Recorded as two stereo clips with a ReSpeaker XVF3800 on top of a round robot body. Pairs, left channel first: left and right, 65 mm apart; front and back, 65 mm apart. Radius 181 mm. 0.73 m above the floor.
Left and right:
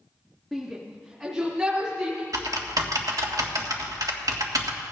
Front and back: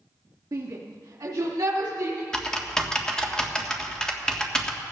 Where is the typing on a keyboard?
80° right, 1.7 m.